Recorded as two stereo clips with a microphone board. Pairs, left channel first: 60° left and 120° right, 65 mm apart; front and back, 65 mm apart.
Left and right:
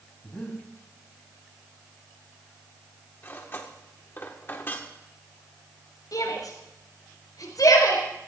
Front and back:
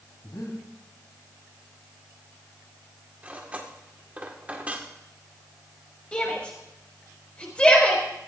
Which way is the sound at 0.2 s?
5° right.